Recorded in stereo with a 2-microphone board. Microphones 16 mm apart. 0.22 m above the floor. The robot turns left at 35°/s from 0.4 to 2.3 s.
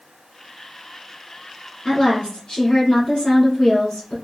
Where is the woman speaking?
55° left (ahead or behind), 2 m; by 4.2 s 60° left (ahead or behind), 2 m.